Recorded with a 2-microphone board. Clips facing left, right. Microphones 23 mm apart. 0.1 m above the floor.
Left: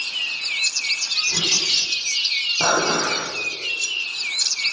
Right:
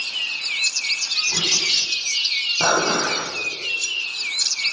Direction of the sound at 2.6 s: 25° right (ahead or behind).